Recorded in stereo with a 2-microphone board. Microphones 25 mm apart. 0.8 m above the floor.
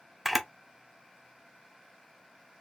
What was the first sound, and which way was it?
A camera shutter, centre (ahead or behind).